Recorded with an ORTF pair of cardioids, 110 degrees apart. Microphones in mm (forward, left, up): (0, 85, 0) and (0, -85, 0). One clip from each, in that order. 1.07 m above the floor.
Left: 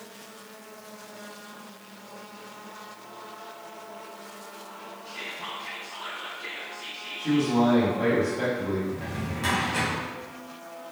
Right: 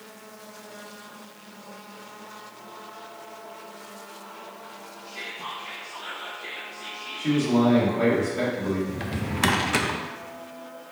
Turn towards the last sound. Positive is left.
turn(degrees=-65)